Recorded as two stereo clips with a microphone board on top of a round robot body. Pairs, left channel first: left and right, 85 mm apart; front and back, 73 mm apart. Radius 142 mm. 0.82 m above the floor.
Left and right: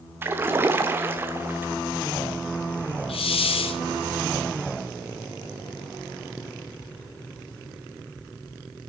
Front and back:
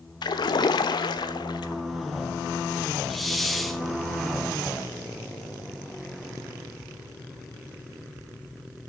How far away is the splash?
About 0.9 m.